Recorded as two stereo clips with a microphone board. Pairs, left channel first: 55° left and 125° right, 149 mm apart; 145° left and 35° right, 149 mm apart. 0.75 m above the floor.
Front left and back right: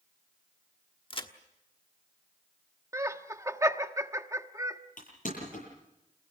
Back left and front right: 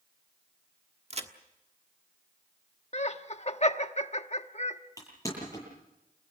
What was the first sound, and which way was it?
A crack, 5° left.